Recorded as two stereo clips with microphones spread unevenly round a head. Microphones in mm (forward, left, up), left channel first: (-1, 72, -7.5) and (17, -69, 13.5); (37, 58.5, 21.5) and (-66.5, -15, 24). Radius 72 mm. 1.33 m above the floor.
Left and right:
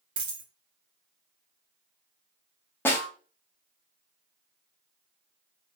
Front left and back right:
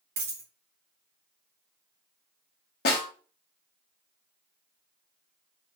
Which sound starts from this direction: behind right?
A dropped coin, at 0.2 s.